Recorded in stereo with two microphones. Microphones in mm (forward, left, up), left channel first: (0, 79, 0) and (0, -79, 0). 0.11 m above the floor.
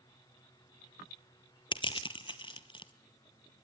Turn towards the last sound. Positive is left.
turn(degrees=30)  # may be behind; listen again after turning